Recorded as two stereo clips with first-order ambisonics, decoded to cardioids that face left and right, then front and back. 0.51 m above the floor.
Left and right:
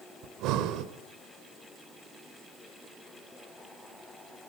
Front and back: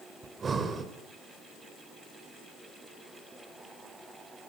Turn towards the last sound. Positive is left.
turn(degrees=-110)